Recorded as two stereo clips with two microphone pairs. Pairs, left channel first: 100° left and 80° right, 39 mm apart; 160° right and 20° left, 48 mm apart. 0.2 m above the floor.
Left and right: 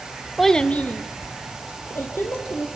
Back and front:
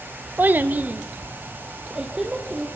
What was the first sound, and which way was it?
A child speaking, 5° left.